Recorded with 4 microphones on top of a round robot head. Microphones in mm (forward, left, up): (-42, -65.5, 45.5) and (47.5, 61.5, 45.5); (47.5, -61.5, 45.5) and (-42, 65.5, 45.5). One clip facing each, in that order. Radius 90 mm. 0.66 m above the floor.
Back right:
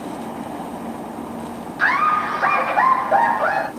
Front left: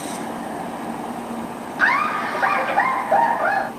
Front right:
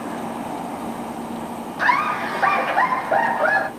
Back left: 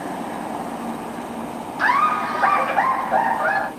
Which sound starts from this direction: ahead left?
Laughter, at 1.8 s.